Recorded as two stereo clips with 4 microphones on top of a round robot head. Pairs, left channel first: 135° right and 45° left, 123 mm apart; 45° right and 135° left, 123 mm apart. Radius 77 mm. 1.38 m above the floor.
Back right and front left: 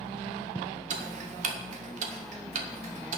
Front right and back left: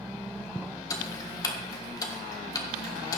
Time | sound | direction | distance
0.9 | ticking | 20° left | 1.6 m